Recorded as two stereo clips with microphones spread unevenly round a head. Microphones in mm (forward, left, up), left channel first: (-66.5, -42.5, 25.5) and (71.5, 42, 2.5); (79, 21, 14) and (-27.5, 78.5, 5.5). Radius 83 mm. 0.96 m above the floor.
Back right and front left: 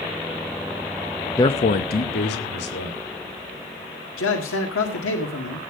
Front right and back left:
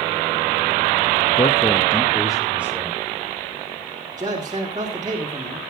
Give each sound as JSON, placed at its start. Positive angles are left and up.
{"t": 1.4, "sound": "a man speaking", "azimuth_deg": -75, "distance_m": 0.5}
{"t": 4.2, "sound": "a man speaking", "azimuth_deg": -140, "distance_m": 2.0}